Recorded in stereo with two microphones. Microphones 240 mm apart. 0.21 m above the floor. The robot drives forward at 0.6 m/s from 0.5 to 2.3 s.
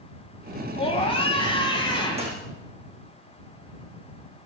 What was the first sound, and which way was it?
A scream, 25° left (ahead or behind).